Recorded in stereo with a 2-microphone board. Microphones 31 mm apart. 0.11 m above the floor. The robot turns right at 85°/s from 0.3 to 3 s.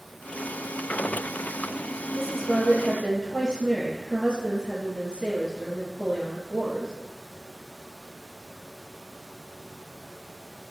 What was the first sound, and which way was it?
A woman speaking, 5° right (ahead or behind).